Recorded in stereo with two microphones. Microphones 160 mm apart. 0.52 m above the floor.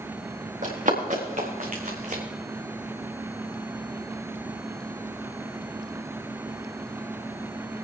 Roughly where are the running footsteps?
Right.